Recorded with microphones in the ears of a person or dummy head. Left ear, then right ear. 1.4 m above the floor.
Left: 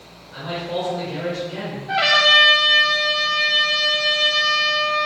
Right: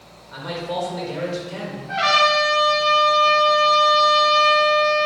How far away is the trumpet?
About 0.6 m.